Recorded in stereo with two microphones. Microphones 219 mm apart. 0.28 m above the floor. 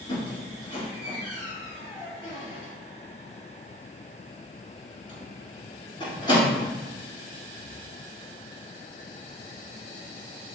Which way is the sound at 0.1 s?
20° left (ahead or behind).